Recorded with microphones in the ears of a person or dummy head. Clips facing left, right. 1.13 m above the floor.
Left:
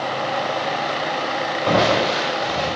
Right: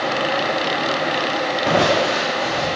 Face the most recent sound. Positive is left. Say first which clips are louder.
# even
turn(degrees=-35)  # may be behind; listen again after turning